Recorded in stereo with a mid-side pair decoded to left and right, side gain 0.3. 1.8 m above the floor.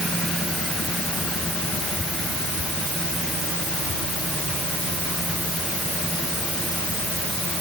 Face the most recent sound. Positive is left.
No sound to turn to.